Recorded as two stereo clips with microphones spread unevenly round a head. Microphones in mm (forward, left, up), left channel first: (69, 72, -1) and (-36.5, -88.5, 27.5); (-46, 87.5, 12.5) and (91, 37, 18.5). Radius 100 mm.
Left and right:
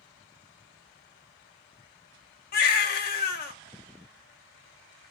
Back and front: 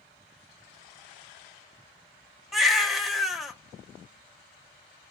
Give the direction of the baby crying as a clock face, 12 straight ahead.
10 o'clock.